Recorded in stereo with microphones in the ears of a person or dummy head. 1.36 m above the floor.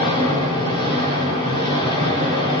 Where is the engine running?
25° left (ahead or behind), 4 m.